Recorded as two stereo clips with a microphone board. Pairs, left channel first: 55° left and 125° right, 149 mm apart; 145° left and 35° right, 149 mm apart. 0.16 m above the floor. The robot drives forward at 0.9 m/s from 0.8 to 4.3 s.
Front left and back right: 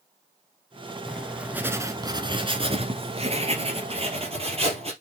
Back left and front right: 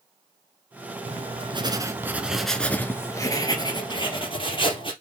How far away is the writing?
About 1.3 m.